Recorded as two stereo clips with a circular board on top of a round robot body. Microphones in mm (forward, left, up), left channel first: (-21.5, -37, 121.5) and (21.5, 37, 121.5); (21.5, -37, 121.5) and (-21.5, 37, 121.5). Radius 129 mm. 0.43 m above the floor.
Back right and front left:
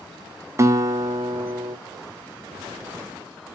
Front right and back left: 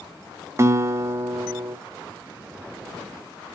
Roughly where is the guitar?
Left.